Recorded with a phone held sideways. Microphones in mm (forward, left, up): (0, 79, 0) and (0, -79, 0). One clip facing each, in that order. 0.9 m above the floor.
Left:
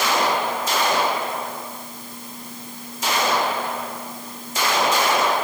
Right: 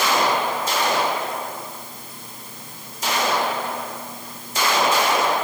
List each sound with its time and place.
Only background noise.